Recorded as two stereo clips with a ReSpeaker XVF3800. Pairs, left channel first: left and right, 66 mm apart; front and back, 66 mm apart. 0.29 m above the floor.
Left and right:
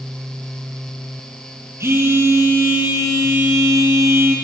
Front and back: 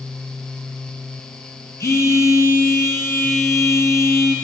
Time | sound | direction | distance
1.8 | a phone buzzing | 45° right | 1.4 m